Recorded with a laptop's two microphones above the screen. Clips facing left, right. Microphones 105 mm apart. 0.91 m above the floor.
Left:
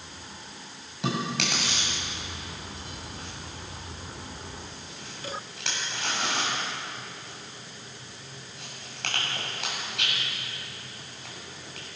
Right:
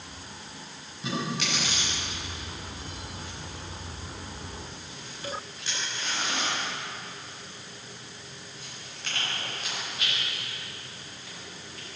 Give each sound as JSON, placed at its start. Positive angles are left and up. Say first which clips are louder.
{"t": 1.0, "sound": "chewing", "louder": "left 2 dB", "side_deg": 80, "distance_m": 7.0}